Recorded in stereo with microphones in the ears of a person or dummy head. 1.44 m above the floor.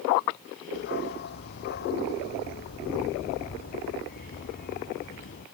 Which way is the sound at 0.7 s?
65° left (ahead or behind).